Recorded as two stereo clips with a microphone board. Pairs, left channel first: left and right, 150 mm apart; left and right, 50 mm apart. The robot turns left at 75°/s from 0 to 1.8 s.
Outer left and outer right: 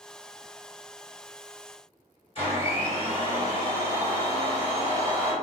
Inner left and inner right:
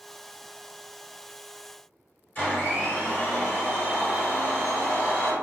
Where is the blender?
35° left (ahead or behind), 1.8 m.